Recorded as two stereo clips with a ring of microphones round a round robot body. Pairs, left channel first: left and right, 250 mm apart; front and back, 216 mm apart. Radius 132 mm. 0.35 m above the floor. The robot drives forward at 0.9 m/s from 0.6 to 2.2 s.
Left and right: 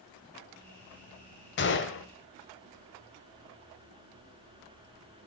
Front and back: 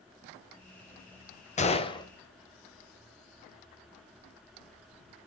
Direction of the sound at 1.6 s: 55° left.